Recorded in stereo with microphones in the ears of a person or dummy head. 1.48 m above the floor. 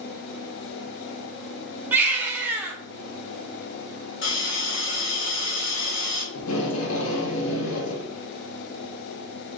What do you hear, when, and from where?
1.9 s a baby crying: 10° right (ahead or behind), 0.6 m
4.2 s a hiss: 60° left (ahead or behind), 1.1 m
6.3 s tape being pulled: 80° left, 1.0 m